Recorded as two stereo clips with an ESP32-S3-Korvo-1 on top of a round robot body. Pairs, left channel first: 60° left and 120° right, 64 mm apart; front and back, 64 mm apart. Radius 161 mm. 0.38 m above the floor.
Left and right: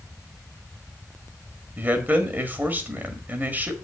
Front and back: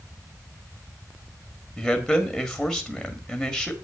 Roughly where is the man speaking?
Right.